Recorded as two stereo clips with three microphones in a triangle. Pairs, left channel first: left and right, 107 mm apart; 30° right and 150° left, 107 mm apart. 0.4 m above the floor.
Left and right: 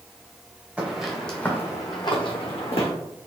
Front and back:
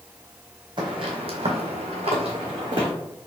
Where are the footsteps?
170° right, 1.2 m; by 2.9 s 110° left, 1.6 m.